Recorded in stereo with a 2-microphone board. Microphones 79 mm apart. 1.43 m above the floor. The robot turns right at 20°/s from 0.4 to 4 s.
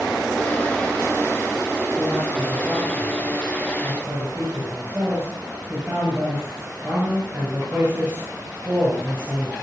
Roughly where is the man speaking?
Behind.